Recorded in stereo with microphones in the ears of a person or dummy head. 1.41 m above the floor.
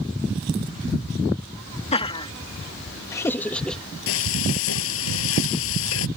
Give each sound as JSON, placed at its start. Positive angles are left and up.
{"t": 1.9, "sound": "laughter", "side_deg": 35}
{"t": 4.1, "sound": "frying", "side_deg": 80}